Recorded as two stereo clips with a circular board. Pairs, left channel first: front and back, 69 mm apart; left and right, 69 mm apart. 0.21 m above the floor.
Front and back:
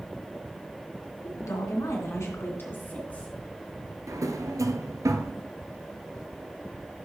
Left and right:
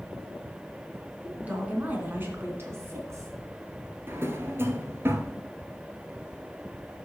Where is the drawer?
145° right, 0.9 m.